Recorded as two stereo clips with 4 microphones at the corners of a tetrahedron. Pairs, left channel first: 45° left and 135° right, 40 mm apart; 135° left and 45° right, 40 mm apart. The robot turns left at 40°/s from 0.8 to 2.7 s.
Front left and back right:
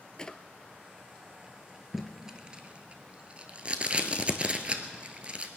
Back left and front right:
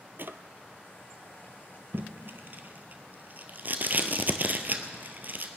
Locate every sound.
0.2 s a drawer: 25° right, 0.5 m
1.9 s tape being pulled: 50° right, 1.1 m; by 5.5 s 80° right, 1.1 m